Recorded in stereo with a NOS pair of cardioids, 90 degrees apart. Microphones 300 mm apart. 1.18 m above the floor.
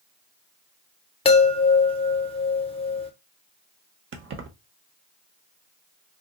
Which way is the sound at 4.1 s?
40° right.